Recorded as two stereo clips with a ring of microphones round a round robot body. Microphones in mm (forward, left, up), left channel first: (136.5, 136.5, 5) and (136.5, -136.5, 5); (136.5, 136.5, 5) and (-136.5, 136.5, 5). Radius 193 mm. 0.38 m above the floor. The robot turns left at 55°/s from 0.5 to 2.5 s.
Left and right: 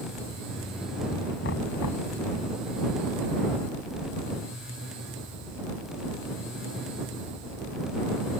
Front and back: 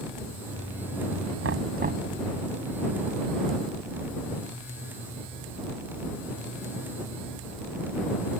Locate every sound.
1.4 s knocking: 150° left; by 2.1 s 110° left